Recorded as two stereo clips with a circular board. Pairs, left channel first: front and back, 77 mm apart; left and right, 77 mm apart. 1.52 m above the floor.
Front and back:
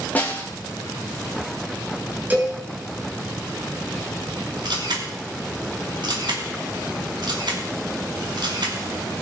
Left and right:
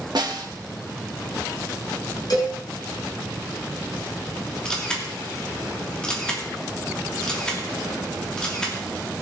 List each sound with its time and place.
0.1 s a snare drum: 70° right, 1.8 m
2.3 s a cowbell: 120° left, 5.5 m
4.7 s a camera shutter: 170° left, 2.5 m